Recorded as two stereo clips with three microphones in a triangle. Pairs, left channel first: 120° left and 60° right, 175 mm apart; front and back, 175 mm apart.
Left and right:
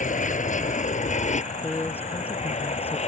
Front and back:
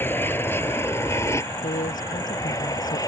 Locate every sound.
0.0 s an aircraft: 80° left; by 3.1 s 70° left
1.6 s a man speaking: 40° left